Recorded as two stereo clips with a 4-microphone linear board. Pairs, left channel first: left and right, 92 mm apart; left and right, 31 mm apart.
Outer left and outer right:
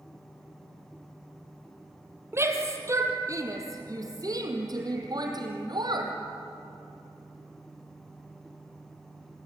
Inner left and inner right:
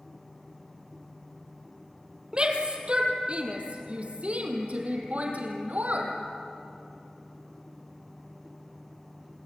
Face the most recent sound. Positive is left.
turn(degrees=-55)  # may be behind; listen again after turning